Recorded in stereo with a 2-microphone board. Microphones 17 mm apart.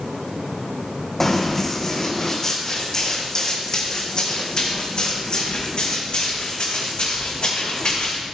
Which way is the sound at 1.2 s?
15° left (ahead or behind).